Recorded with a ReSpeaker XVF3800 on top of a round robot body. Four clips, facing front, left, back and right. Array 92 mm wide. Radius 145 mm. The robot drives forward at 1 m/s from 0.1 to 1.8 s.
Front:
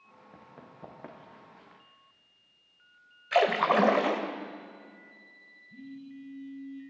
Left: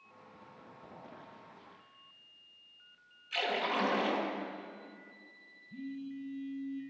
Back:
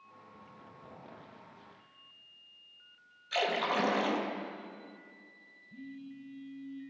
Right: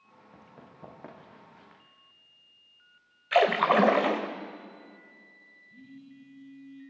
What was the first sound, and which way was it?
Running footsteps, 20° right.